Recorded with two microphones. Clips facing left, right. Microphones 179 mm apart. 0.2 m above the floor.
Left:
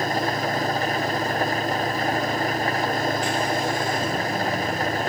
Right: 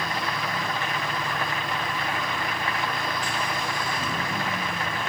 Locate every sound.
0.0 s an engine running: 40° left (ahead or behind)